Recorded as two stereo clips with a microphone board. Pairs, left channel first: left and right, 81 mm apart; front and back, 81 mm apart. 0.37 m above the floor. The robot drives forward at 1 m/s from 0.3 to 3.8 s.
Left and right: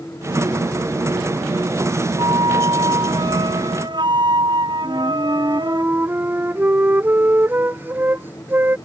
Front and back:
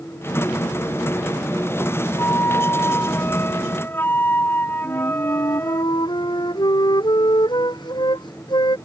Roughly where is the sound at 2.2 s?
Ahead right.